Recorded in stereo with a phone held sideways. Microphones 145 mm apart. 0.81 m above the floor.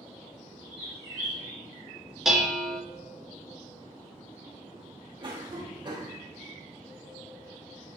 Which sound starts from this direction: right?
A cough, at 5.2 s.